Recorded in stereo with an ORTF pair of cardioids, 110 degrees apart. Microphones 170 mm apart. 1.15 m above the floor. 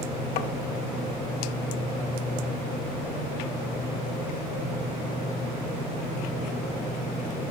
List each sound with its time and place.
0.4 s tapping: 65° left, 0.8 m